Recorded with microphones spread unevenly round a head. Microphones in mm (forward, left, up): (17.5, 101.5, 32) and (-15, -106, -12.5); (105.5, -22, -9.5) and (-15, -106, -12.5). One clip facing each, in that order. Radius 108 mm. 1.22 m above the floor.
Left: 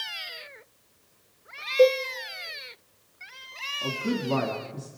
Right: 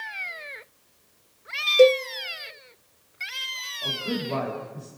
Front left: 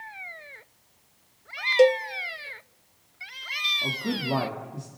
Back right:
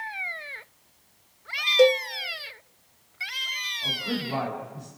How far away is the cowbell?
About 0.5 m.